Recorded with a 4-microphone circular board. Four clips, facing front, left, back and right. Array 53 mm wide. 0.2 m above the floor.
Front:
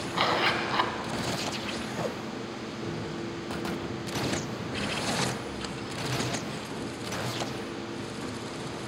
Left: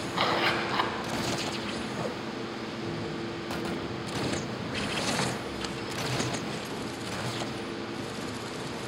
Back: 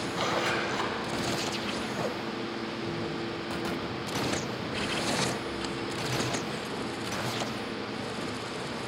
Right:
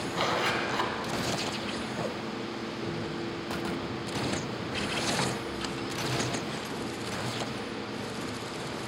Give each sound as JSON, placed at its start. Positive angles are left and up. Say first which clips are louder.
{"t": 0.1, "sound": "a zipper", "louder": "left 2 dB, front 4 dB", "azimuth_deg": 30, "distance_m": 1.0}